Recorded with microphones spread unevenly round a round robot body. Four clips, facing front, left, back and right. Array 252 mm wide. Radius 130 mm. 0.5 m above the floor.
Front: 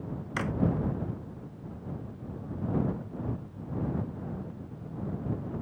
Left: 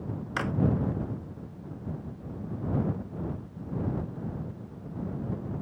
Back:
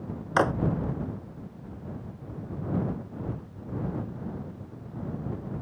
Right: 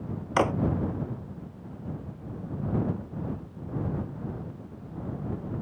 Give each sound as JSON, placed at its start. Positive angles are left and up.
{"t": 0.4, "sound": "a drawer", "azimuth_deg": -140}